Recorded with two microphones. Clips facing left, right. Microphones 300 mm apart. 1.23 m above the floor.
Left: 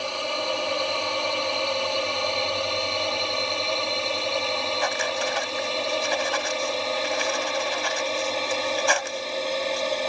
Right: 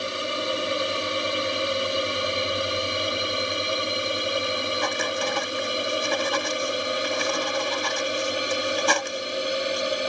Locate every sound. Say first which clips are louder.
0.0 s a drone: right 1 dB; 20° right (ahead or behind); by 10.1 s 15° right (ahead or behind)
4.8 s writing: right 1 dB; 45° right (ahead or behind)